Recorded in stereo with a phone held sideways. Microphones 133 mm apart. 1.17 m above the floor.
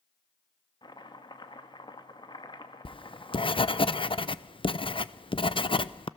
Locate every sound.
0.8 s chopping: 35° left (ahead or behind), 1.5 m
2.9 s writing: 40° left (ahead or behind), 0.6 m